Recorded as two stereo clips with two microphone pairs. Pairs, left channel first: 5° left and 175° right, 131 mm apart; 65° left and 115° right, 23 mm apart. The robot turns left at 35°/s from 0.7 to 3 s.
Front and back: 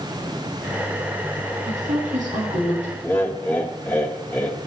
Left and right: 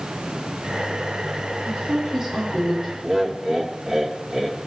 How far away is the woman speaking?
About 8.5 m.